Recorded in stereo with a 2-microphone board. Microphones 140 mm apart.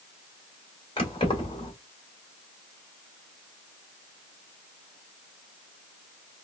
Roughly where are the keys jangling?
Left.